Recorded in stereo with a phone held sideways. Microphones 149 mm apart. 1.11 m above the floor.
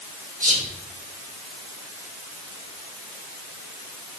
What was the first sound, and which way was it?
Whispering, 60° right (ahead or behind).